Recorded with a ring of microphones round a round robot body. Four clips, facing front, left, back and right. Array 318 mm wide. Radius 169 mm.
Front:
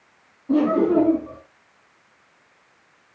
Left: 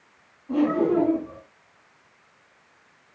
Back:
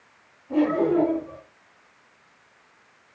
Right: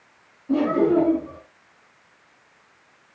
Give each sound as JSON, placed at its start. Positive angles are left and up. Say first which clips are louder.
{"t": 0.5, "sound": "laughter", "louder": "right 2 dB, front 3 dB", "azimuth_deg": -5, "distance_m": 6.5}